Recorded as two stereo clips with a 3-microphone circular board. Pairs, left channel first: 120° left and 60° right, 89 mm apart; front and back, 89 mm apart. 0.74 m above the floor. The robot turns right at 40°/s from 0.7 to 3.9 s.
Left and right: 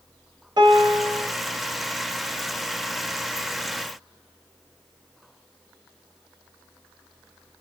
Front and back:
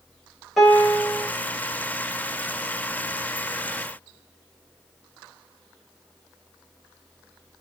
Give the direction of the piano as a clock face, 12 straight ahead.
3 o'clock.